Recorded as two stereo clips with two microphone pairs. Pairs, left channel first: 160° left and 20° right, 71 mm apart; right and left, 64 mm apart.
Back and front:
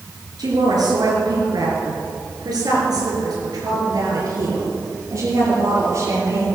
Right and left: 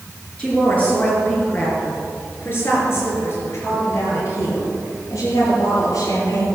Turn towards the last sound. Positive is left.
turn(degrees=-65)